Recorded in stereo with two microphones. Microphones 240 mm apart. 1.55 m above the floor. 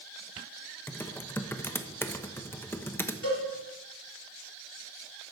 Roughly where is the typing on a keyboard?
Centre.